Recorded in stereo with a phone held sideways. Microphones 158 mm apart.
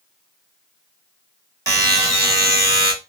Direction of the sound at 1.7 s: 20° right (ahead or behind).